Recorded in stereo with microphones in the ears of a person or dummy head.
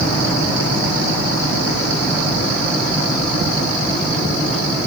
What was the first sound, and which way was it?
Only background noise.